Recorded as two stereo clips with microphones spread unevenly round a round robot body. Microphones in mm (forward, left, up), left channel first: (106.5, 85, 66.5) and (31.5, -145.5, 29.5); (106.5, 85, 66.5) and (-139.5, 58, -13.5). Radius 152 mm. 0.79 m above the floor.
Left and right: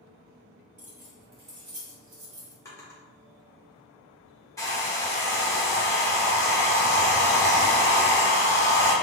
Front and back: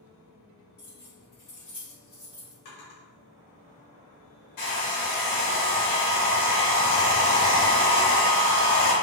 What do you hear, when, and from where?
0.8 s keys jangling: 50° right, 1.8 m; by 2.5 s 85° right, 1.4 m
2.6 s a drawer: 5° right, 1.4 m
4.6 s a hair dryer: 5° right, 1.2 m